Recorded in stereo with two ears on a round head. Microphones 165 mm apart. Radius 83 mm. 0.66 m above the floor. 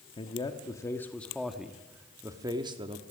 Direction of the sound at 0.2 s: 30° left (ahead or behind).